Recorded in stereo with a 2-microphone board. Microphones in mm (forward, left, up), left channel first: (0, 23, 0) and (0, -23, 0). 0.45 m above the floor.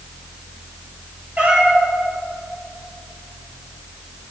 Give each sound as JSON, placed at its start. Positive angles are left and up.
{"t": 1.4, "sound": "a cat meowing", "side_deg": -30, "distance_m": 3.5}